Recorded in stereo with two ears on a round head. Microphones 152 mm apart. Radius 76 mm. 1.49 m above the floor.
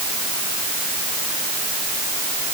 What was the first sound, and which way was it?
Only background noise.